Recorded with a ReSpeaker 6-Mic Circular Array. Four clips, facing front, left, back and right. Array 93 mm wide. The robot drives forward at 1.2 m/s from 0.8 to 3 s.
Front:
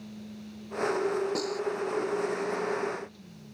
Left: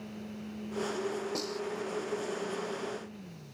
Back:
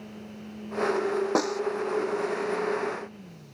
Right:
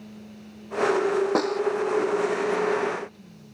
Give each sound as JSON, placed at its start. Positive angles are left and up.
{"t": 1.4, "sound": "a snare drum", "azimuth_deg": -130}